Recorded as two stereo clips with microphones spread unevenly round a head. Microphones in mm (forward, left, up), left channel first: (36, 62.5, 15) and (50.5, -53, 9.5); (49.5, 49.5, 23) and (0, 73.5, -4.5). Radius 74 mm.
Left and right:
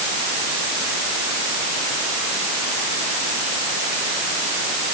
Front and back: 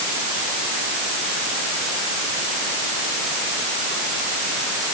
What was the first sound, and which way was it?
Only background noise.